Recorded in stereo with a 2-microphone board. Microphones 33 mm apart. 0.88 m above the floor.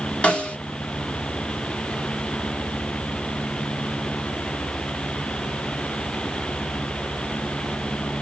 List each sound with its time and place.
0.2 s a snare drum: 35° left (ahead or behind), 1.3 m